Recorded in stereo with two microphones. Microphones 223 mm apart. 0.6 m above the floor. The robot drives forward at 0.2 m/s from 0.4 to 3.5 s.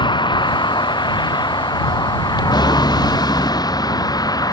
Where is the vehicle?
20° left (ahead or behind); by 4.5 s 15° left (ahead or behind).